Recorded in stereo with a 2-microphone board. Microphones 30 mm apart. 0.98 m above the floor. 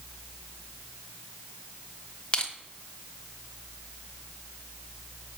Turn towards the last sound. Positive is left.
turn(degrees=30)  # may be behind; listen again after turning